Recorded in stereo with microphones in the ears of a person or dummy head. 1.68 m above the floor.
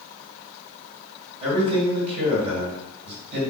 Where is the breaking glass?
I don't hear breaking glass.